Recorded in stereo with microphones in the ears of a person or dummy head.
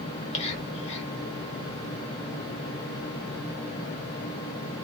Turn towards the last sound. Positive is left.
turn(degrees=35)  # may be behind; listen again after turning